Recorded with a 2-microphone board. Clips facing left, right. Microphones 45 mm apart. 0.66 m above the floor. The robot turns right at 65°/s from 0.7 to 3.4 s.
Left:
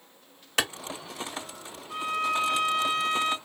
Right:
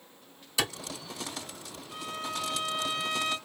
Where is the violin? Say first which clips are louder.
Left 9 dB; 60° left, 0.9 m; by 3.4 s 155° left, 0.9 m.